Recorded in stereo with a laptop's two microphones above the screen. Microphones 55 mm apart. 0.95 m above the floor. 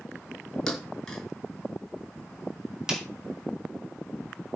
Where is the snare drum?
10° right (ahead or behind), 2.5 m.